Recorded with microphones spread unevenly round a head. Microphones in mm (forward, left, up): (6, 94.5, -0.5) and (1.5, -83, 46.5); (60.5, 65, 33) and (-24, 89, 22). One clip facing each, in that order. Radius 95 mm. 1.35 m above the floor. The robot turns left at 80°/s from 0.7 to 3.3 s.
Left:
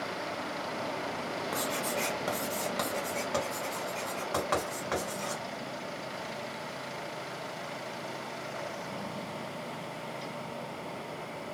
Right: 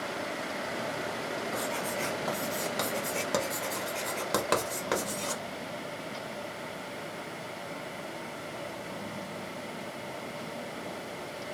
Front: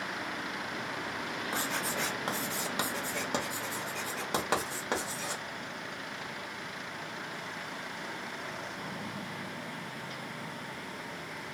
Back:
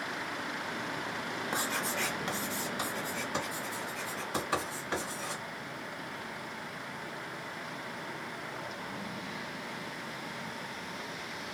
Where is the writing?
95° left, 1.0 m; by 5.4 s 45° right, 1.0 m.